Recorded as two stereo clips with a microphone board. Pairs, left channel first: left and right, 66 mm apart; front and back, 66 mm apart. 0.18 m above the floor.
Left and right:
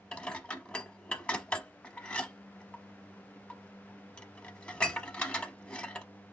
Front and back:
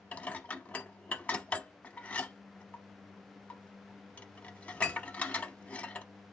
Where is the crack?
No crack in this recording.